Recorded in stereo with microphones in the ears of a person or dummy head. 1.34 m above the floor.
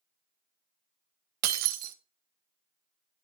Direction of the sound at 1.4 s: 50° right (ahead or behind).